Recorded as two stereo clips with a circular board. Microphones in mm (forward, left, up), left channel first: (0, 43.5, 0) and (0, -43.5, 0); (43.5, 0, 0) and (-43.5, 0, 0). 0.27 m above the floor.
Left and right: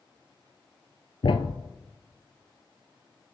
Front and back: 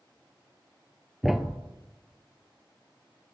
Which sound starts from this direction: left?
A thud, at 1.2 s.